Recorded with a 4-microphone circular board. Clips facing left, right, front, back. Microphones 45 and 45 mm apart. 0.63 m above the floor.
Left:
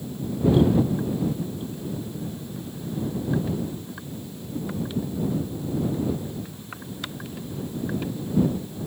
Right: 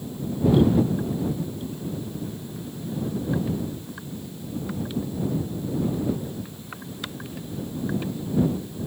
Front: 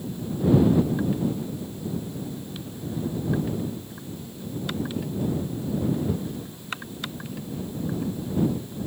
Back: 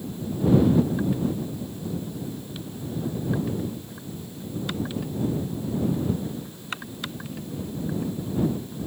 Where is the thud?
I don't hear a thud.